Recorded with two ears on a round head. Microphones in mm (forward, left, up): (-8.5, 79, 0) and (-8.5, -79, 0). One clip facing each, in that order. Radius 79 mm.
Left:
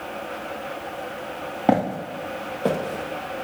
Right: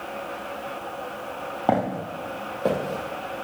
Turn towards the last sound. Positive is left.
turn(degrees=0)  # may be behind; listen again after turning